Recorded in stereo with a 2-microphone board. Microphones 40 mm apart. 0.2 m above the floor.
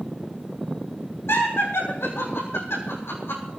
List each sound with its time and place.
1.3 s laughter: 85° left, 8 m; by 3.5 s 75° left (ahead or behind), 8 m